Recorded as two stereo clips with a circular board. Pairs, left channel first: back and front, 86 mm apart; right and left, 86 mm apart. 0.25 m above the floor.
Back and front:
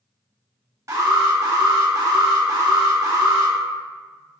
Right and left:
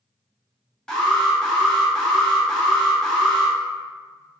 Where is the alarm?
15° right, 0.8 m.